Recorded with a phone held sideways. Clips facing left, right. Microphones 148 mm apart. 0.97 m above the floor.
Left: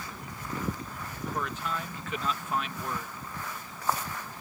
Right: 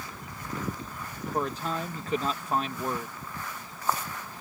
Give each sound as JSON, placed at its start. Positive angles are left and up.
{"t": 1.3, "sound": "a man speaking", "side_deg": -35}